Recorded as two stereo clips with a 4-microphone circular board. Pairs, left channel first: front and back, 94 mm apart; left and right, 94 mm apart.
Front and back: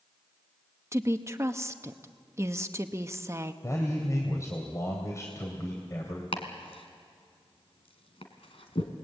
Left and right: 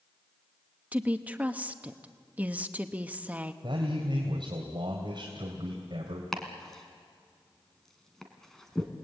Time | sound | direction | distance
0.9 | a woman speaking | 150° right | 1.0 m
3.6 | a man speaking | 55° right | 3 m
6.3 | chopping | 5° left | 2.5 m